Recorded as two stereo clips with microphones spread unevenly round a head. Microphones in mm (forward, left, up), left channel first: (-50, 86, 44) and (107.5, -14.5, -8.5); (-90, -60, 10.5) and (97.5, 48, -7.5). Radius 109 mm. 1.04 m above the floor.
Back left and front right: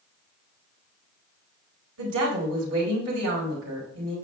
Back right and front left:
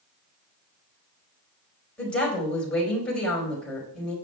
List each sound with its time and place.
2.0 s a woman speaking: 65° right, 4.5 m